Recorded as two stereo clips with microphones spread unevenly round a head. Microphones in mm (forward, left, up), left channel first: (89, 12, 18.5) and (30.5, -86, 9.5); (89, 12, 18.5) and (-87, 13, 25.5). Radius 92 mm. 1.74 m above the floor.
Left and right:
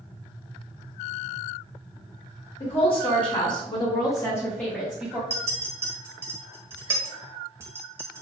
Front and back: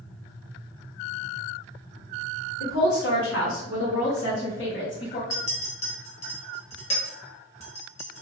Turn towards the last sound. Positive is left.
turn(degrees=-55)